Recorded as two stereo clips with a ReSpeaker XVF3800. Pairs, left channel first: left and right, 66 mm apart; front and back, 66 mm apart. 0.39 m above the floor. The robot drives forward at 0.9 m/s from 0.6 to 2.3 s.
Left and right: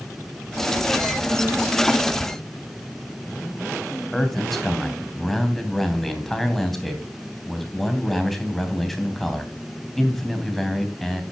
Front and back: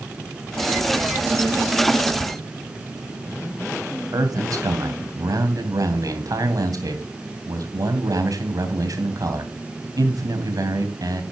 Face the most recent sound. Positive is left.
turn(degrees=175)